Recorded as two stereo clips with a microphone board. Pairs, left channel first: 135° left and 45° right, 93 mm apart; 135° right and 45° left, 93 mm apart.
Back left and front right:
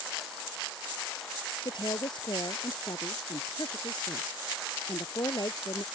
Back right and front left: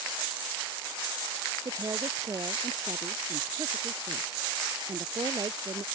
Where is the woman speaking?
95° left; by 5.8 s 90° left.